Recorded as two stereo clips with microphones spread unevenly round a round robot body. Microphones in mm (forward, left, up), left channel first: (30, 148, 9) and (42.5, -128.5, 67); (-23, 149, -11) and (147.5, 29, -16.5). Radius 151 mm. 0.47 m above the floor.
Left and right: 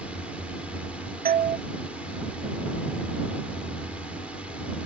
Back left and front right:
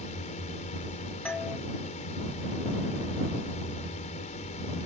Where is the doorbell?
135° right.